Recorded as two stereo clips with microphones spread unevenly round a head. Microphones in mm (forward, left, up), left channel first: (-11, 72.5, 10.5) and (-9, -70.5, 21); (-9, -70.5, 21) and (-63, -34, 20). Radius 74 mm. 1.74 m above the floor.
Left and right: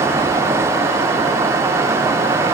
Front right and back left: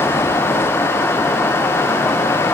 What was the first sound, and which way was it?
Only background noise.